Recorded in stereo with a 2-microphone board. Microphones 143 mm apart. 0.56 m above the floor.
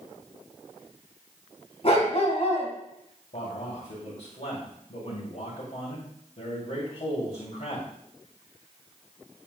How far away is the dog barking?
About 1.9 m.